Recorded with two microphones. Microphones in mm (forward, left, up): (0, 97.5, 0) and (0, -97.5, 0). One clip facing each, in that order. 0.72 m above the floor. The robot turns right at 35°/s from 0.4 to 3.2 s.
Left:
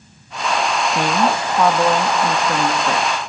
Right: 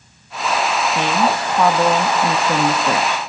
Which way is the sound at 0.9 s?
10° left (ahead or behind).